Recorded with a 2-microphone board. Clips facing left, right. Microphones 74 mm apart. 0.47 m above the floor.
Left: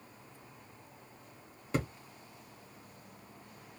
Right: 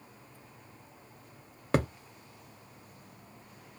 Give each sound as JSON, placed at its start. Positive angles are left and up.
{"t": 1.7, "sound": "a thud", "side_deg": -65, "distance_m": 0.7}